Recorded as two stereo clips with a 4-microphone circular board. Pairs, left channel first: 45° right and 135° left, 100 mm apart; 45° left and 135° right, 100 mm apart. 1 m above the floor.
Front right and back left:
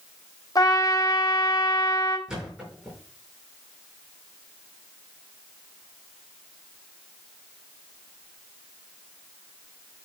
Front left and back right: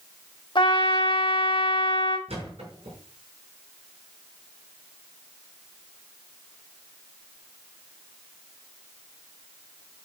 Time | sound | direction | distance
0.6 | a trumpet | 5° left | 2 m
2.3 | a thud | 140° right | 6 m